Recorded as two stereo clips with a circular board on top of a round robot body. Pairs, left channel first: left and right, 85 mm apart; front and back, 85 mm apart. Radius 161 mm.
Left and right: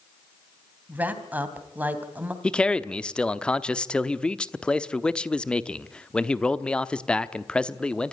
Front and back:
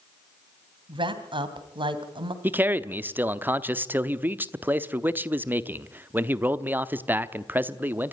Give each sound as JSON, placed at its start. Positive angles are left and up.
{"t": 0.9, "sound": "a woman speaking", "azimuth_deg": -160, "distance_m": 3.0}
{"t": 2.4, "sound": "a man speaking", "azimuth_deg": 150, "distance_m": 1.2}